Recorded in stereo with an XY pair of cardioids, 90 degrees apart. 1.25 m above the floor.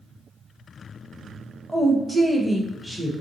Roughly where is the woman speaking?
Ahead.